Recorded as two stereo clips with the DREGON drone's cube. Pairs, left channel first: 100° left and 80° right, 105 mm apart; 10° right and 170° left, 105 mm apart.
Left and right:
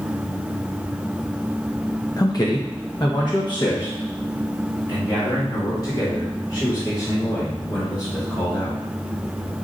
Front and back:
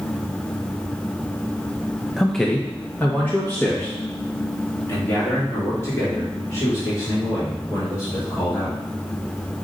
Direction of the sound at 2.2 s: 80° left.